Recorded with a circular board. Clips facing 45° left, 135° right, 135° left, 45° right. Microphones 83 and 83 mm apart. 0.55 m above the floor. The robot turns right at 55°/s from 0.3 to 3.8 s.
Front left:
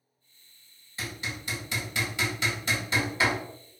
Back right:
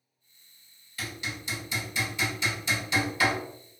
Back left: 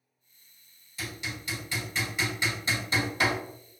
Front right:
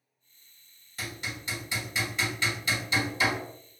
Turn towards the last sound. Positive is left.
turn(degrees=140)